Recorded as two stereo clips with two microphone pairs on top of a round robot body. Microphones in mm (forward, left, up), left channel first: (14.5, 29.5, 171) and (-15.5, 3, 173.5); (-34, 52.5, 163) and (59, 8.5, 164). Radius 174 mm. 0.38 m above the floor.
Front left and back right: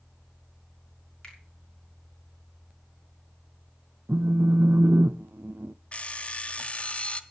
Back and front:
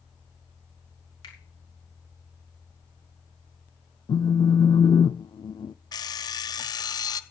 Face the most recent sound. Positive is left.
turn(degrees=100)